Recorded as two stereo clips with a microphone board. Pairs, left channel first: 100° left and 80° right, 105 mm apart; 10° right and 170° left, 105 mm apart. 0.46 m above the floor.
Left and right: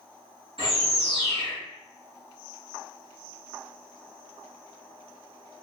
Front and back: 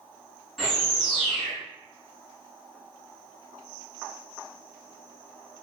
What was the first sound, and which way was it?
A bird, 100° right.